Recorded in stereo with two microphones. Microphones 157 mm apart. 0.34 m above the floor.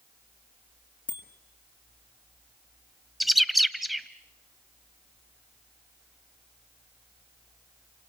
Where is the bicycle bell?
30° left (ahead or behind), 3.5 m.